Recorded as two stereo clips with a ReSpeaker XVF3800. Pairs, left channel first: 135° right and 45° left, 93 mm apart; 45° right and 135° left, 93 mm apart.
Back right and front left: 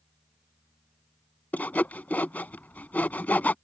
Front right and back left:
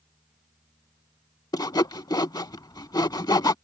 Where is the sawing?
70° right.